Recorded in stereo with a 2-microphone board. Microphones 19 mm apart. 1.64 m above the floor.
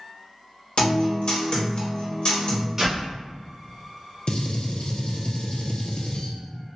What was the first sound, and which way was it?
A guitar, 55° left (ahead or behind).